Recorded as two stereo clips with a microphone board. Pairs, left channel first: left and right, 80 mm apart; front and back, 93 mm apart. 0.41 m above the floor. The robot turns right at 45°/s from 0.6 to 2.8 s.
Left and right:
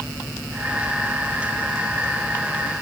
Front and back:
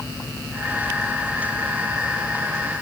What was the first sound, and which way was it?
Only background noise.